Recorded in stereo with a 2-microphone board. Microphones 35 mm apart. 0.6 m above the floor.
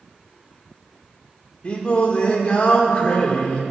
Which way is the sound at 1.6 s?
30° left (ahead or behind).